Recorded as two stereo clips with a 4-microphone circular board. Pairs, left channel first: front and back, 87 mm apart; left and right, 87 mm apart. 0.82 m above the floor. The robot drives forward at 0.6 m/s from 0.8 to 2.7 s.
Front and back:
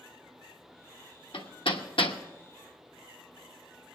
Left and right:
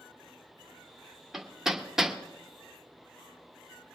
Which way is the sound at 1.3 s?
5° right.